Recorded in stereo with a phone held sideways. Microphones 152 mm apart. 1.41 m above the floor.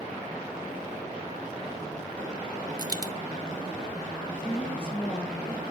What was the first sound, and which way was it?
A dropped coin, 25° right (ahead or behind).